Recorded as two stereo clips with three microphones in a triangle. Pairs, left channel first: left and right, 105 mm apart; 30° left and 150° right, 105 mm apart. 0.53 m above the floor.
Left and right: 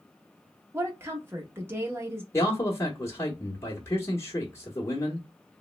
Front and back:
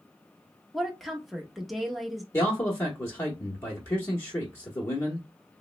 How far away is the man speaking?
About 0.8 m.